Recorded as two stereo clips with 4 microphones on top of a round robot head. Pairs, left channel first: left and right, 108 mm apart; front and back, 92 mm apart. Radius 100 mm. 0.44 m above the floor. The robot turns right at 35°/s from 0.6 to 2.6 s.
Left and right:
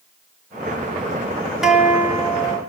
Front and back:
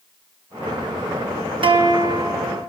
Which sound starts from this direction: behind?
A guitar, at 1.6 s.